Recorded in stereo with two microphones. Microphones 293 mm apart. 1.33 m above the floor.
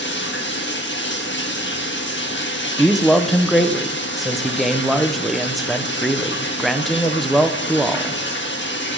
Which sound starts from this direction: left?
Running water, at 0.0 s.